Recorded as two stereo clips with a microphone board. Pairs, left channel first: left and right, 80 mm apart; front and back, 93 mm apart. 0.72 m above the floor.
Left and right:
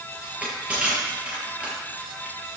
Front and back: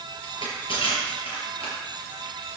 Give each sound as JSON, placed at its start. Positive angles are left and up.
{"t": 0.2, "sound": "crushing", "azimuth_deg": -15, "distance_m": 6.5}